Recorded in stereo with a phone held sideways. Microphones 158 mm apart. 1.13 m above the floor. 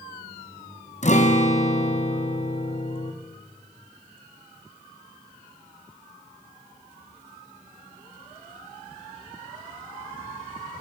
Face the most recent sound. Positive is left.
turn(degrees=50)  # may be behind; listen again after turning